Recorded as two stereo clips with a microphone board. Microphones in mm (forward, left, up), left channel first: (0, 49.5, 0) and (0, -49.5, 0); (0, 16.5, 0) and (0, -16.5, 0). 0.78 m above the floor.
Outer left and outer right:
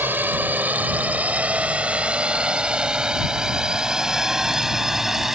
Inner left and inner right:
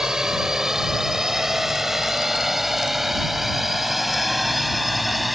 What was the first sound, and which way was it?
A drone, 20° right (ahead or behind).